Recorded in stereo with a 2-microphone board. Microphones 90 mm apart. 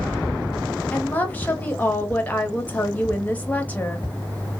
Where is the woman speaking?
20° left (ahead or behind), 0.7 m.